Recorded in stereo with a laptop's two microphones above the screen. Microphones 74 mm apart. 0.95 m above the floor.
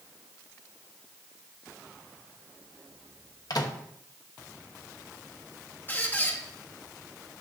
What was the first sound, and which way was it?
A microwave, 60° left (ahead or behind).